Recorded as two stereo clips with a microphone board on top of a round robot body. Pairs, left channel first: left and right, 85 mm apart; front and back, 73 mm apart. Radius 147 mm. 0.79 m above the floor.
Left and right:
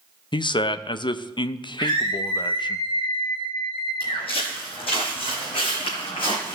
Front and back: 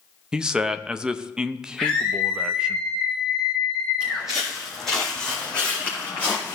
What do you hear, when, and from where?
0.3 s a man speaking: 100° left, 0.7 m
1.8 s a scream: 85° left, 1.9 m
4.0 s footsteps: 105° left, 2 m; by 6.5 s 65° left, 3 m